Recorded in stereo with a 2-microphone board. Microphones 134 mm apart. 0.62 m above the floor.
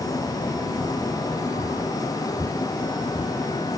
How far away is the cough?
No cough in this recording.